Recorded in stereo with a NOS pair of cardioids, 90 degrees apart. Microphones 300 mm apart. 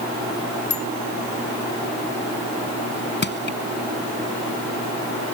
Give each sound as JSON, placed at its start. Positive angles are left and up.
{"t": 0.7, "sound": "a bicycle bell", "azimuth_deg": 60}
{"t": 3.2, "sound": "crushing", "azimuth_deg": 35}